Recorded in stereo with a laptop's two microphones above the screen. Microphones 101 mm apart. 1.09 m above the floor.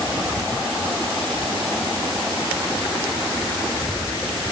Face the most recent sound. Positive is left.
No sound to turn to.